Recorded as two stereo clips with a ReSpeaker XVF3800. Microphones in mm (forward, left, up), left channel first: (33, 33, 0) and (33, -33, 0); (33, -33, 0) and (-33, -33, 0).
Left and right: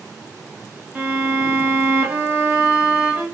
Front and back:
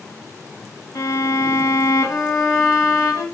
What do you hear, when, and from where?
0.9 s a violin: 25° right, 1.7 m